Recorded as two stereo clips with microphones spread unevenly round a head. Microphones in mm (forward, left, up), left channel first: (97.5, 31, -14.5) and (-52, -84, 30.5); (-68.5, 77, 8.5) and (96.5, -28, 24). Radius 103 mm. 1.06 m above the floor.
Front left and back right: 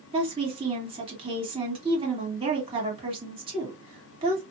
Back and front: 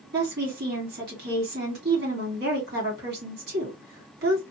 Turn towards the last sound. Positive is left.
turn(degrees=-80)